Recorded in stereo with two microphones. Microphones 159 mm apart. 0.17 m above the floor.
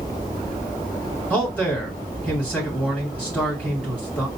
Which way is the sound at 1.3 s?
10° left (ahead or behind).